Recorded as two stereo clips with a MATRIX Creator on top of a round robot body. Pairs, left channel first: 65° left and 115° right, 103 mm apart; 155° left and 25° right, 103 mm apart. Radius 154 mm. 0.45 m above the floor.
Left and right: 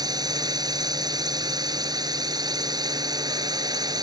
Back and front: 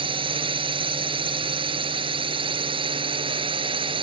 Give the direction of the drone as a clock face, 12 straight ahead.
2 o'clock.